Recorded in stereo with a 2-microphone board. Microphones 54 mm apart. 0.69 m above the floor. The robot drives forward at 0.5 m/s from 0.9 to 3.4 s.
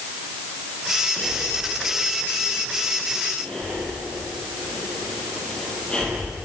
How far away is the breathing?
About 7.5 m.